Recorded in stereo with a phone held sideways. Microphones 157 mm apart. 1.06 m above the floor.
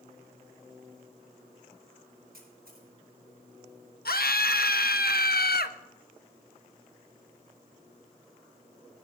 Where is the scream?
80° left, 0.9 m.